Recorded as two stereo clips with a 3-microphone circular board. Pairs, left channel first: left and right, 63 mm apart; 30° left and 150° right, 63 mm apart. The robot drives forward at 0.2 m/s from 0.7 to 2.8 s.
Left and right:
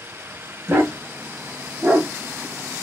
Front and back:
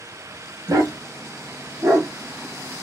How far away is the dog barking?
About 0.8 m.